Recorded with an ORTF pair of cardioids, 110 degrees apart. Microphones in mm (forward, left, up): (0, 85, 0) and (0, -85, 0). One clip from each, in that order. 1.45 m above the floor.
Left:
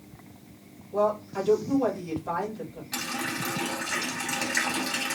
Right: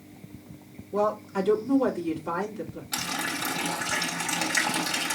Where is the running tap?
25° right, 3.5 m.